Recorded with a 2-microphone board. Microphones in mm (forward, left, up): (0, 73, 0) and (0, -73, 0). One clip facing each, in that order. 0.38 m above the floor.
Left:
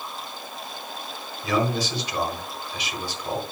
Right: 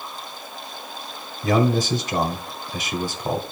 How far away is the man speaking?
About 1.2 m.